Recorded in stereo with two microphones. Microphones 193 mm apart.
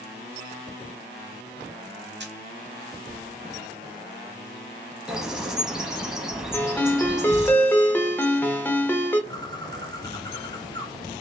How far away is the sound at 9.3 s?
About 1.0 m.